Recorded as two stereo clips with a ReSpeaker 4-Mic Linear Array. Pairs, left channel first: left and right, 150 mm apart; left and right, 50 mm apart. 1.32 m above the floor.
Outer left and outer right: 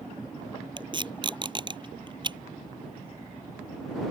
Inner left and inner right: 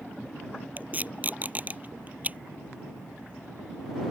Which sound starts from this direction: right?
Tape being pulled, at 0.8 s.